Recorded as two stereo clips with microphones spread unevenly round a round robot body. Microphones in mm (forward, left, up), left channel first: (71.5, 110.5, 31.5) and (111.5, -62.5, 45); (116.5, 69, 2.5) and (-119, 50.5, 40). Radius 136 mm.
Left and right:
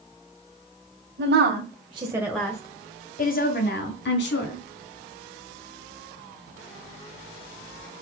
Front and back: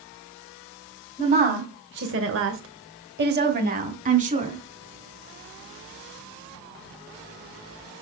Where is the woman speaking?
105° right, 1.9 m; by 4.6 s 120° left, 3.5 m.